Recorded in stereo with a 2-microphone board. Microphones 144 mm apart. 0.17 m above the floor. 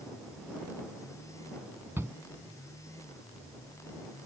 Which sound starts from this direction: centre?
A shout, at 2.0 s.